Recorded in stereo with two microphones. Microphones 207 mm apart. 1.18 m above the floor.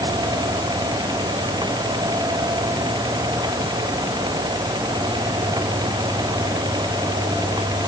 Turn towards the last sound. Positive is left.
No sound to turn to.